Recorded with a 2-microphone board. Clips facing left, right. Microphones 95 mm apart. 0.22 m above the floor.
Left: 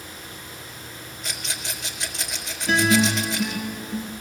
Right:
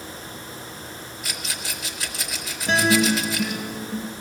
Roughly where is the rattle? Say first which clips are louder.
Even; centre.